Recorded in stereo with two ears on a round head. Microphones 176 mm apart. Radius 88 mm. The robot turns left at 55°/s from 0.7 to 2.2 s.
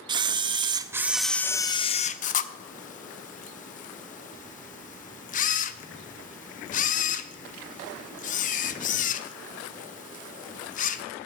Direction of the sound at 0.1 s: 20° right (ahead or behind).